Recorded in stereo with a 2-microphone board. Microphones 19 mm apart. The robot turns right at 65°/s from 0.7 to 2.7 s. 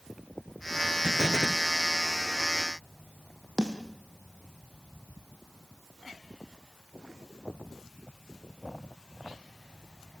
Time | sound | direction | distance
1.0 | an explosion | 105° right | 0.9 m
3.6 | a snare drum | 30° right (ahead or behind) | 3 m